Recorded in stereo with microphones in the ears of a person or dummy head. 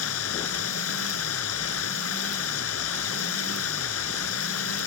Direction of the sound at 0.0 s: 85° left.